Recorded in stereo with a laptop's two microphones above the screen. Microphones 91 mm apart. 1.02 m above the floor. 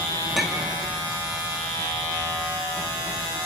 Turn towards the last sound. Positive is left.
turn(degrees=0)  # may be behind; listen again after turning